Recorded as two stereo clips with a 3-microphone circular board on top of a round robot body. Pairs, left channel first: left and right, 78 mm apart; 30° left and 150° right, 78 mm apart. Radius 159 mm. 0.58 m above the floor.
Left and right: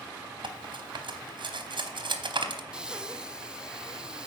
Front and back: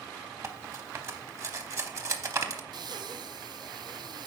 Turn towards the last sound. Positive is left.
turn(degrees=-170)